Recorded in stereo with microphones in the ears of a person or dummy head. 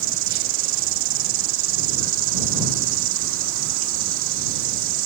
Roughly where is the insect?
Right.